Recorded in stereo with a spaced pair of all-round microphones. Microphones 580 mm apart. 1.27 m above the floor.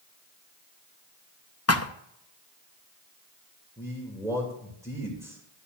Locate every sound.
1.7 s a thud: 25° left (ahead or behind), 0.6 m
3.8 s a man speaking: 5° left (ahead or behind), 2.5 m